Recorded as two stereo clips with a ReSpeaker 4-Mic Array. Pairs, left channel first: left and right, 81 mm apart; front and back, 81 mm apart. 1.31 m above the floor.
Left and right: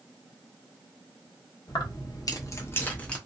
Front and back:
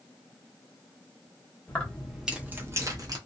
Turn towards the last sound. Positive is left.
turn(degrees=165)